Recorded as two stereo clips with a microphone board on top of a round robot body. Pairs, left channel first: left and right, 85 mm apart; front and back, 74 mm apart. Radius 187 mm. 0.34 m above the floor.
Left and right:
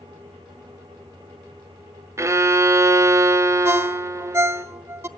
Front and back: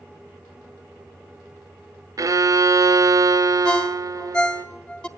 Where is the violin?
145° right, 0.5 m.